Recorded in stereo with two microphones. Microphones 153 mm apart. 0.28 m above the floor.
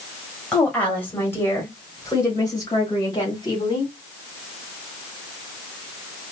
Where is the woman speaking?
5° left (ahead or behind), 1.6 m; by 3.9 s 25° left (ahead or behind), 2 m.